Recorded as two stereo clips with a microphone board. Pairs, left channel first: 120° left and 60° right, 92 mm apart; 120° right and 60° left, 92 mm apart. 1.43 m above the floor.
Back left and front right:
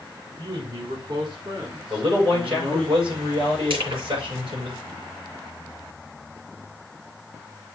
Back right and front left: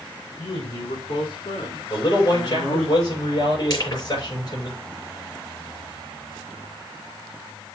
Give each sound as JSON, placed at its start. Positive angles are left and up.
{"t": 0.4, "sound": "a man speaking", "azimuth_deg": -105, "distance_m": 4.0}
{"t": 1.9, "sound": "a man speaking", "azimuth_deg": -80, "distance_m": 6.0}
{"t": 3.7, "sound": "crushing", "azimuth_deg": -80, "distance_m": 6.0}